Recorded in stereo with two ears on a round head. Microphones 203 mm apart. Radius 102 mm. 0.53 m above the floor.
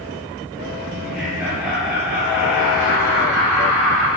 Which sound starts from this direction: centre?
Laughter, at 0.9 s.